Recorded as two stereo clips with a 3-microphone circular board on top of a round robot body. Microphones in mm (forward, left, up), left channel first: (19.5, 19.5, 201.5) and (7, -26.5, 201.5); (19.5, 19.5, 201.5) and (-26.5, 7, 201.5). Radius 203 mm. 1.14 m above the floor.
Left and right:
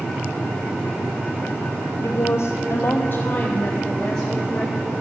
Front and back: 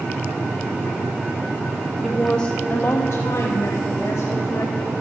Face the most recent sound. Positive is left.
turn(degrees=-10)